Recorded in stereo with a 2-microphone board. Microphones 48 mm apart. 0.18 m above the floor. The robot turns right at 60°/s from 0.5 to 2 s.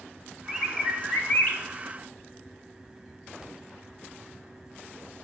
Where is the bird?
Straight ahead, 1.0 m; by 1.6 s 65° left, 1.0 m.